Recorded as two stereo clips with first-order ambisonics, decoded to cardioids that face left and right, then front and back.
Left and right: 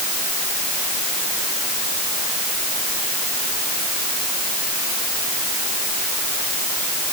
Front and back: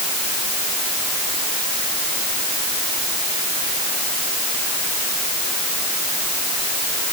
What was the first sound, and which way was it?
Only background noise.